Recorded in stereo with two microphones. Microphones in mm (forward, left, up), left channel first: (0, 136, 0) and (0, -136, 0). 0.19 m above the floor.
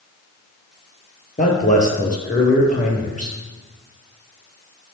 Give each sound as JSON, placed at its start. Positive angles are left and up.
{"t": 1.4, "sound": "a man speaking", "side_deg": 25, "distance_m": 4.0}